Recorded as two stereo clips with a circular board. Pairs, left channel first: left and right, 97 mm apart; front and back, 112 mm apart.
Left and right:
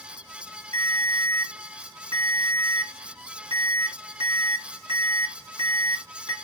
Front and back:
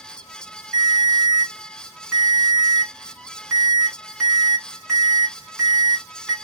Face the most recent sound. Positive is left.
turn(degrees=-100)